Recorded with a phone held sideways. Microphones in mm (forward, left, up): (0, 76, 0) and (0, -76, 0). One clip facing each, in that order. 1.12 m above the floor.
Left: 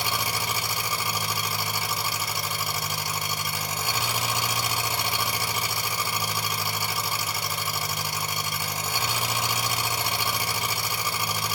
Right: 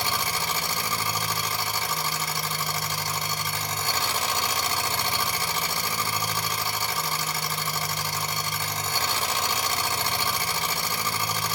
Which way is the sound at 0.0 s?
10° left (ahead or behind).